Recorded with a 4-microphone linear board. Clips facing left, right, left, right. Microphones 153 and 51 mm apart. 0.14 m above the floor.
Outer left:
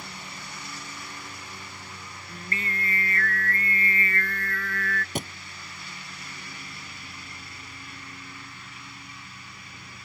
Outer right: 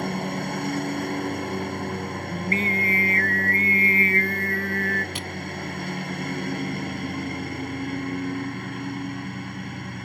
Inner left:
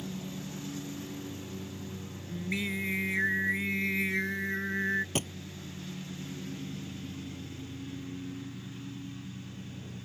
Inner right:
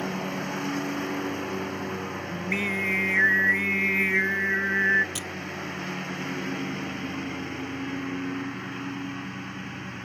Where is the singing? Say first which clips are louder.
Outer right 8 dB, inner right 5 dB; 35° right (ahead or behind).